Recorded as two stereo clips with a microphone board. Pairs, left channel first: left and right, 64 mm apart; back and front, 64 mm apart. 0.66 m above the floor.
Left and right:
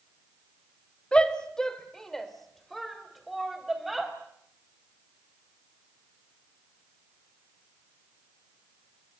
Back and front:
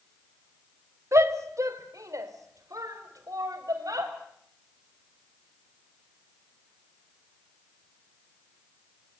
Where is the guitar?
I don't hear a guitar.